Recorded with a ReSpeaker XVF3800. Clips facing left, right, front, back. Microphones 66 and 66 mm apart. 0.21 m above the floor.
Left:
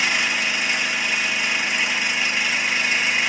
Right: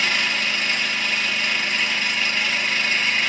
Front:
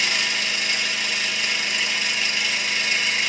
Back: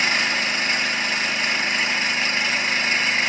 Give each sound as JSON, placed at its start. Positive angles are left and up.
{"t": 0.0, "sound": "an engine running", "azimuth_deg": 160, "distance_m": 0.8}